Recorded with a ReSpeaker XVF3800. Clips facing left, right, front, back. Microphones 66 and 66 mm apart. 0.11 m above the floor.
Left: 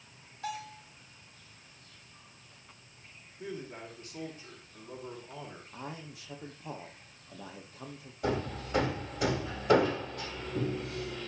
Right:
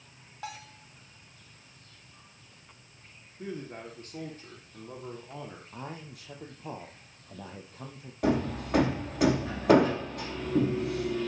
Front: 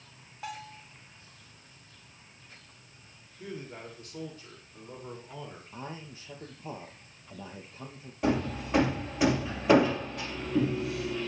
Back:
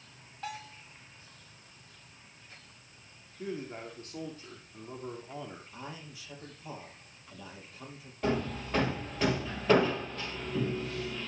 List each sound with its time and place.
0.4 s a bell: 85° right, 4.5 m
3.4 s a man speaking: 130° right, 4.5 m
5.7 s a man speaking: 55° right, 5 m
8.2 s hammering: 80° right, 3 m